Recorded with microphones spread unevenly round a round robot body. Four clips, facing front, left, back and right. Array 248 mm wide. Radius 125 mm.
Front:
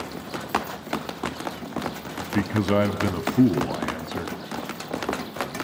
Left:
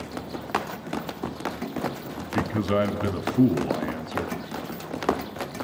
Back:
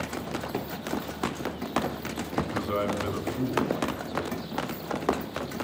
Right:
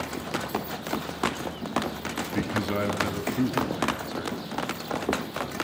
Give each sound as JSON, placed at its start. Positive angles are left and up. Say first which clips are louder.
{"t": 2.2, "sound": "a man speaking", "louder": "left 2 dB, front 6 dB", "azimuth_deg": 0, "distance_m": 2.5}